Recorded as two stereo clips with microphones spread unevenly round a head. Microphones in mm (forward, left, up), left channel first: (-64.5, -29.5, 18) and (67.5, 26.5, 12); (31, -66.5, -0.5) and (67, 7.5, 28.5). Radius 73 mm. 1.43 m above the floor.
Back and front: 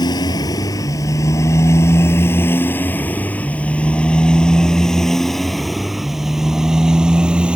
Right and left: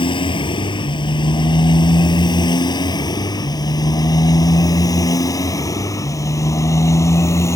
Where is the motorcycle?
95° right; by 7.6 s 60° right.